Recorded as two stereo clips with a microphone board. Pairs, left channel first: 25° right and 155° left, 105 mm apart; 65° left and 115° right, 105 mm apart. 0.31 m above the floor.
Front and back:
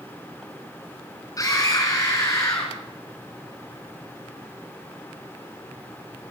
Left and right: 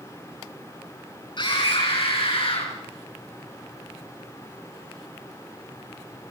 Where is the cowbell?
No cowbell in this recording.